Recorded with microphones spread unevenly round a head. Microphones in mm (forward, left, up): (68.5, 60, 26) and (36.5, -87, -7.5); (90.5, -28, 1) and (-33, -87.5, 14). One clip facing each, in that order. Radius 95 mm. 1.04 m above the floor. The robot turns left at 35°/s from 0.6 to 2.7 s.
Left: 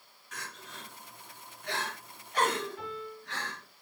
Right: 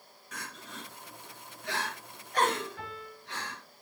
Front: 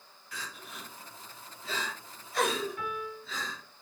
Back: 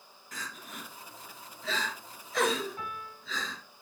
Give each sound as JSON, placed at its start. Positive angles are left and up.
{"t": 0.3, "sound": "crying", "azimuth_deg": -110, "distance_m": 3.0}
{"t": 2.8, "sound": "a piano", "azimuth_deg": -95, "distance_m": 7.0}